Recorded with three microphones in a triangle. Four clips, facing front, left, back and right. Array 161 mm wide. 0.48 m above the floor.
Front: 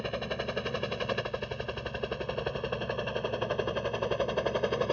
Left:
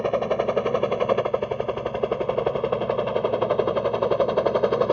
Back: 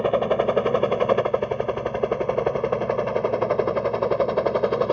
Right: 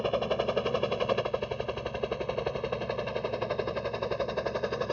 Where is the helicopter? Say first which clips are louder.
Left 6 dB, back 14 dB; 160° left; by 4.9 s 120° left.